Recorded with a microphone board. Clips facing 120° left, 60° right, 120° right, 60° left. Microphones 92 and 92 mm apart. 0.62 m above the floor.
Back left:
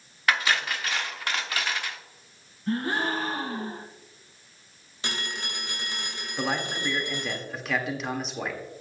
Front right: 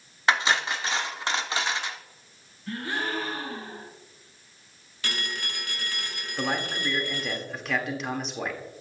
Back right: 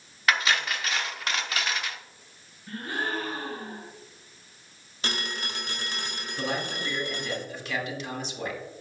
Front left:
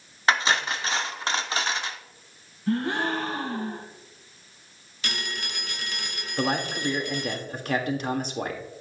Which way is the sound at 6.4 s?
30° left.